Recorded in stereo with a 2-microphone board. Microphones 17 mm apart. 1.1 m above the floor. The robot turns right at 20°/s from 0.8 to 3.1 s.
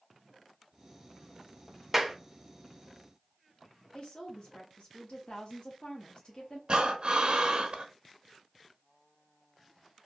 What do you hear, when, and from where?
1.9 s a clap: 15° right (ahead or behind), 0.5 m
3.9 s a woman speaking: 50° left (ahead or behind), 0.8 m
6.7 s breathing: 50° right (ahead or behind), 0.6 m